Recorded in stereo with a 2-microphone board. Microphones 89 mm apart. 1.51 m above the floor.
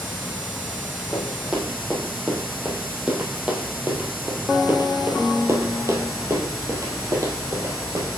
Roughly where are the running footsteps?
Centre.